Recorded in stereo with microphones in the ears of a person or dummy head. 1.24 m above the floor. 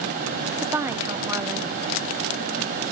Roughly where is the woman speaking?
Centre.